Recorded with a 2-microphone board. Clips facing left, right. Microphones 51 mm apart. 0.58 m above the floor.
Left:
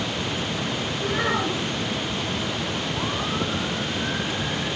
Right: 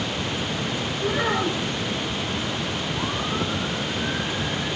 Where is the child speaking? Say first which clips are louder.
Right 1 dB; centre (ahead or behind), 5.5 m.